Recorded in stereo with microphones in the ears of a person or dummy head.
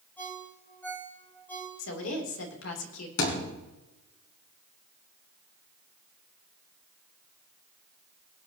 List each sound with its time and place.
0.2 s a ringtone: 10° left (ahead or behind), 4 m
1.8 s a woman speaking: 75° left (ahead or behind), 3 m
3.2 s a thud: 80° left, 4 m